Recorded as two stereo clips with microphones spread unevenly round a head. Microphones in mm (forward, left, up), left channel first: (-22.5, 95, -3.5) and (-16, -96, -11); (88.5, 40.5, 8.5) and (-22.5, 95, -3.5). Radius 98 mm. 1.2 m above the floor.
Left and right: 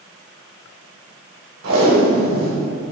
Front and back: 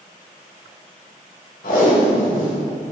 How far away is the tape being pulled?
About 2.5 m.